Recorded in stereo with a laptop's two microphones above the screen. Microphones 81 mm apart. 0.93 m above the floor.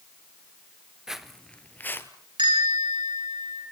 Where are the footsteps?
5° right (ahead or behind), 0.9 m; by 2.1 s 30° left (ahead or behind), 1.3 m.